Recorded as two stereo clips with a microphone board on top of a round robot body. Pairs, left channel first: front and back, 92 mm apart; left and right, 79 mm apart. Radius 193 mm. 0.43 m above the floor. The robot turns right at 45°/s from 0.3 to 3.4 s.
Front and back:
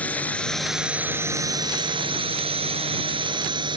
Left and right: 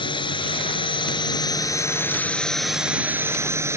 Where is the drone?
75° left; by 3.8 s 145° right.